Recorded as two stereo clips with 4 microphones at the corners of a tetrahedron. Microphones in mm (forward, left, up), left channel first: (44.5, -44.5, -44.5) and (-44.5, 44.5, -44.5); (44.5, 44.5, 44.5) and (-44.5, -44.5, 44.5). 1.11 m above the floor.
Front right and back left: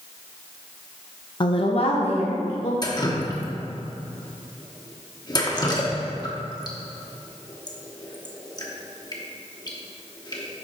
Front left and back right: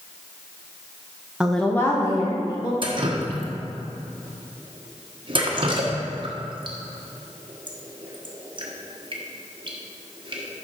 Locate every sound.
1.4 s a woman speaking: 55° right, 0.6 m; by 2.7 s 10° right, 1.7 m
2.8 s dripping: 95° right, 1.1 m